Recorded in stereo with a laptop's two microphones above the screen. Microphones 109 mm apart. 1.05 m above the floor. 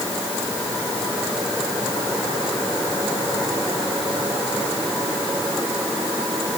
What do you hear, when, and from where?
Only background noise.